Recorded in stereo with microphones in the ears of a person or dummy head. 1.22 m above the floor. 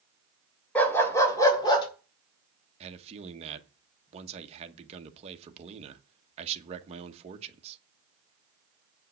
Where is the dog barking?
10° left (ahead or behind), 2.5 m; by 1.9 s 25° left (ahead or behind), 2.5 m.